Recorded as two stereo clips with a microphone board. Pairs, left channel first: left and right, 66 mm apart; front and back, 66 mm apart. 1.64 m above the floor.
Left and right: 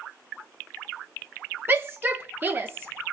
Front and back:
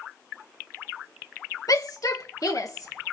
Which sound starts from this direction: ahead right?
A shout, at 1.7 s.